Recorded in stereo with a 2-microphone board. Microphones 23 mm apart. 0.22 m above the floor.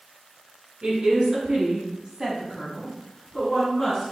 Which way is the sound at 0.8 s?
60° right (ahead or behind).